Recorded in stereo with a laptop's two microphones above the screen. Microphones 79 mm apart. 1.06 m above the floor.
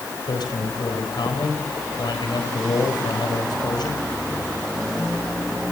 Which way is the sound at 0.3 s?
70° left (ahead or behind).